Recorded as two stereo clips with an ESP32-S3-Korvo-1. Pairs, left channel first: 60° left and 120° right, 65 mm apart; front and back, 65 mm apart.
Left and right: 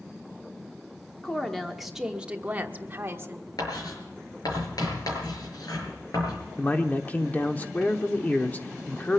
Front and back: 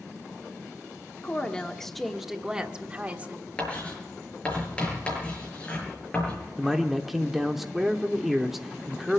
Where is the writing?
70° left, 6 m.